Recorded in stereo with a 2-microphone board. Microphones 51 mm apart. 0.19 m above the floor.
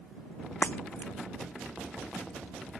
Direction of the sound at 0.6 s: 45° left (ahead or behind).